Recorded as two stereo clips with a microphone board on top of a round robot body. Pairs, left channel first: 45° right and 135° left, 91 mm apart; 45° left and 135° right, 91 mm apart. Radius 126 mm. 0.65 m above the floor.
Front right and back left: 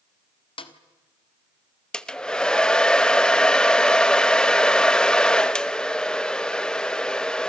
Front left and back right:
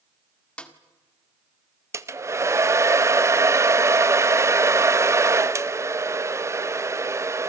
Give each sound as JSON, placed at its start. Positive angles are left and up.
{"t": 0.6, "sound": "a snare drum", "azimuth_deg": -35, "distance_m": 1.8}
{"t": 1.9, "sound": "a hair dryer", "azimuth_deg": -120, "distance_m": 1.0}